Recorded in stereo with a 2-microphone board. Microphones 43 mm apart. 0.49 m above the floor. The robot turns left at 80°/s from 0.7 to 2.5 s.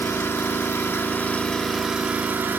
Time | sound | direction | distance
0.0 | an engine running | 85° left | 0.9 m